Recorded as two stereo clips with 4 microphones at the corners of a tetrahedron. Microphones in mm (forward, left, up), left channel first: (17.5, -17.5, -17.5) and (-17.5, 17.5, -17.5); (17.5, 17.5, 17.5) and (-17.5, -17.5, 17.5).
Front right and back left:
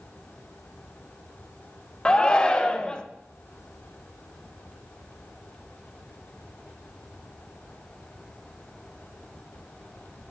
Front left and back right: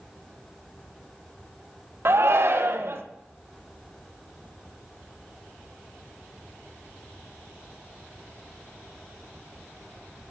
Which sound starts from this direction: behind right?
A shout, at 2.0 s.